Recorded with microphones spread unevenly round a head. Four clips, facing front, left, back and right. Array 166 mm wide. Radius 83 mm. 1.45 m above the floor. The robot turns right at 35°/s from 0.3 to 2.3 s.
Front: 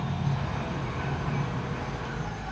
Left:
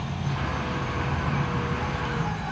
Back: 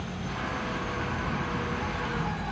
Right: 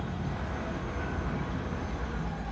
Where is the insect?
35° left, 1.9 m; by 2.5 s 105° left, 1.9 m.